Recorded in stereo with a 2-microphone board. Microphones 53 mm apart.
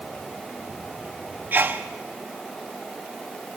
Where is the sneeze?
35° right (ahead or behind), 0.9 m.